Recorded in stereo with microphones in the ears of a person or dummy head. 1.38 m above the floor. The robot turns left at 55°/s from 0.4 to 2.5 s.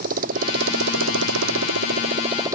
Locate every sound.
0.0 s a motorcycle: 45° right; by 2.6 s 160° right